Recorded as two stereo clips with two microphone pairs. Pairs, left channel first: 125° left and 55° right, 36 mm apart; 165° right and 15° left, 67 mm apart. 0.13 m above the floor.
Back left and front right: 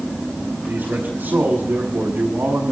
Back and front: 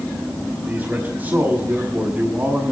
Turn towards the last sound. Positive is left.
turn(degrees=-45)